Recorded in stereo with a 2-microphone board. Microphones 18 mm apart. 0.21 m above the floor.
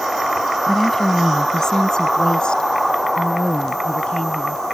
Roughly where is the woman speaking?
Centre.